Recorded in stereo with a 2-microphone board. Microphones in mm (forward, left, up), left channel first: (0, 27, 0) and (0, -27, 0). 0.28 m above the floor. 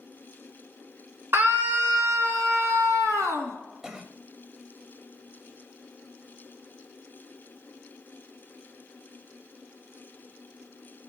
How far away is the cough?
About 1.0 m.